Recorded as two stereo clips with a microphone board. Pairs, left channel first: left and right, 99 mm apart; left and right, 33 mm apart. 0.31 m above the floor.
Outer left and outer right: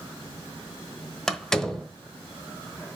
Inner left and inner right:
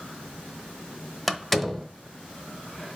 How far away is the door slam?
About 1.0 m.